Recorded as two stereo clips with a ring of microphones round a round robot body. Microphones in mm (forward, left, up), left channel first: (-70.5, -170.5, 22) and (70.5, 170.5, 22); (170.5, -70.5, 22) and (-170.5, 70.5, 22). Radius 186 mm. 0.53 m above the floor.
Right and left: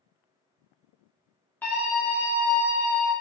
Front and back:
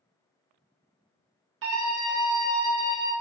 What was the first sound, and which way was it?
A scream, 165° left.